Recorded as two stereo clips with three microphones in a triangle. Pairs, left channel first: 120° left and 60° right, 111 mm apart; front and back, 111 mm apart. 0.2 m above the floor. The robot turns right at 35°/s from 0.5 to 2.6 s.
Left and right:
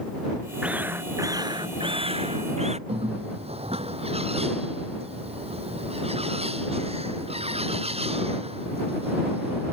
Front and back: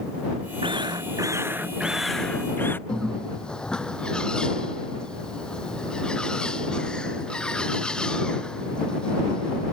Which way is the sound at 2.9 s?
80° right.